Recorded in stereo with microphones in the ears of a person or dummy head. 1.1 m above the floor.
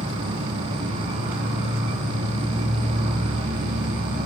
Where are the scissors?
I don't hear scissors.